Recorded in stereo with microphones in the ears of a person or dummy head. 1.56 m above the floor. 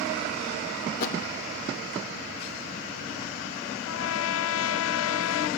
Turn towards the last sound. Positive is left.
turn(degrees=70)  # may be behind; listen again after turning